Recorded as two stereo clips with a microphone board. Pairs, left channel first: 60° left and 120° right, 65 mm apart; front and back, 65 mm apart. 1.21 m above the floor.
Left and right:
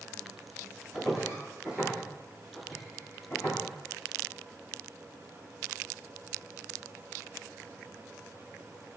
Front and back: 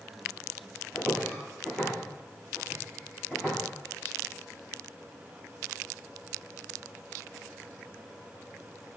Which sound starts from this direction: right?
Footsteps, at 0.9 s.